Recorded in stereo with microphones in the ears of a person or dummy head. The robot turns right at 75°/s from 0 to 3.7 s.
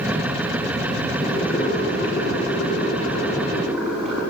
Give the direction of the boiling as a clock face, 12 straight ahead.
12 o'clock.